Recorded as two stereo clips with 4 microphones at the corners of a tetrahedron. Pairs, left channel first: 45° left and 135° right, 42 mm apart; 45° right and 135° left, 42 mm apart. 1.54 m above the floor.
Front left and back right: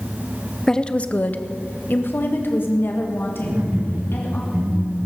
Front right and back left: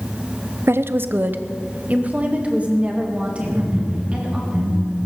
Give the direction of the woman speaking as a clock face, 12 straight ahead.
8 o'clock.